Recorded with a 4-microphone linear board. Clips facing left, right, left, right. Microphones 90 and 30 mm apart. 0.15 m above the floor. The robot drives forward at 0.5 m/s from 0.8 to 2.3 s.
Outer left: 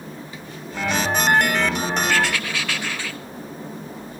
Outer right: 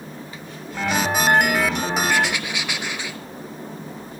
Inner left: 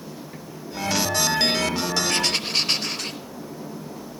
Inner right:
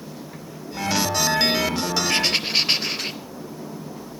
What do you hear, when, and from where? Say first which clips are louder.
2.1 s writing: even, inner right 2 dB; 15° right (ahead or behind), 1.2 m